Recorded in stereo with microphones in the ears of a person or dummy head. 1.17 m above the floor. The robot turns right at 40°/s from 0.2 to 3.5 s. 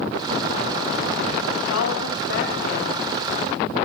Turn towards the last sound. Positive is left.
turn(degrees=160)